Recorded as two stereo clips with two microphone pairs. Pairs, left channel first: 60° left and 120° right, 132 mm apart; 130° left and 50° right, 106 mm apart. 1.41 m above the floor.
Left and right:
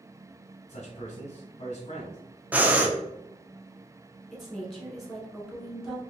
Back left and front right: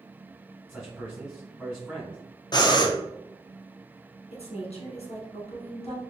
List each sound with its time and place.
0.7 s a man speaking: 40° left, 0.8 m
2.5 s breathing: 165° left, 0.5 m
4.3 s a woman speaking: 150° left, 1.3 m